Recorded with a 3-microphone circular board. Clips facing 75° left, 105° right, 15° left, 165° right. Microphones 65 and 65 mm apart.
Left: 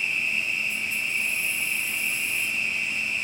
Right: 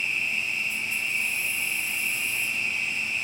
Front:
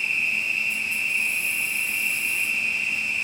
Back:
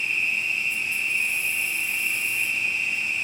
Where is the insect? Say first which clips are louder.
Left 1 dB, even; 20° left, 1.6 m.